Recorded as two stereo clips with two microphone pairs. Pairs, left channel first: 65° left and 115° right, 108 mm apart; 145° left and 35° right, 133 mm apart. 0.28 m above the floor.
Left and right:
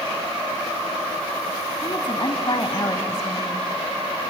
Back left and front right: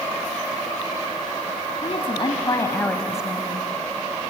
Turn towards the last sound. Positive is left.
turn(degrees=0)